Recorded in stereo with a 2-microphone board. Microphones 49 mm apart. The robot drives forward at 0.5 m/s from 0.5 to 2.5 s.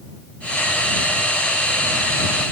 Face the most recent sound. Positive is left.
No sound to turn to.